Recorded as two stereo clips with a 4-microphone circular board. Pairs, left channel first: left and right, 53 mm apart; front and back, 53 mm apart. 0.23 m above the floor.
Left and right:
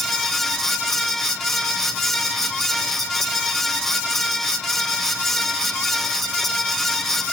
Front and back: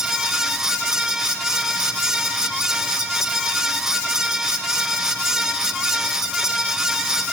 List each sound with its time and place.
Only background noise.